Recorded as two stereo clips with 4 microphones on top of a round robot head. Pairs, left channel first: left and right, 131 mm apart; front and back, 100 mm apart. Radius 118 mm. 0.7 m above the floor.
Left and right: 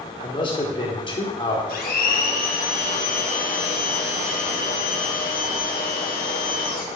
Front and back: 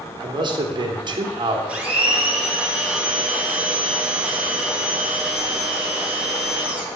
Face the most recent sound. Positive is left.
turn(degrees=105)